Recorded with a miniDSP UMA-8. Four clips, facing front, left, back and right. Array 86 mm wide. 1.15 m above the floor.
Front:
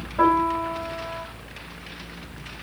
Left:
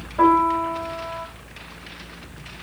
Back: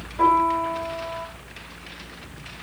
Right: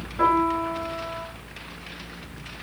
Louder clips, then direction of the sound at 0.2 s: Left 4 dB, back 1 dB; 55° left.